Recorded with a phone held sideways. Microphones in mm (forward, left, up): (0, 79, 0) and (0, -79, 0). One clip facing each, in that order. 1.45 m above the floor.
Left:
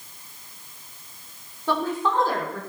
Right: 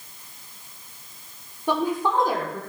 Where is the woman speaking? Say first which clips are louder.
Right 1 dB; 15° right (ahead or behind), 5 m.